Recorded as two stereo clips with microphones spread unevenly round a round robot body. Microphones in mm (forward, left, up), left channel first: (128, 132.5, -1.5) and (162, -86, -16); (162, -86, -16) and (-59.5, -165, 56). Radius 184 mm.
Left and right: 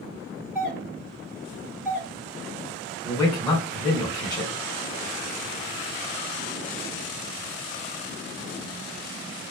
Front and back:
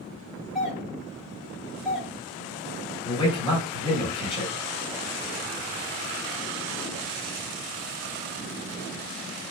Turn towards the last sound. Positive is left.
turn(degrees=30)